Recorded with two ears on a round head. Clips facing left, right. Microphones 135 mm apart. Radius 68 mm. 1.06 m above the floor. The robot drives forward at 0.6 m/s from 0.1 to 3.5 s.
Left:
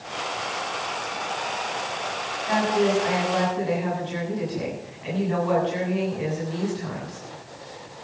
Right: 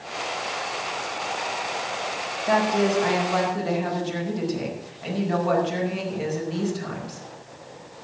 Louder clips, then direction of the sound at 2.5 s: Right 1 dB; 55° right (ahead or behind).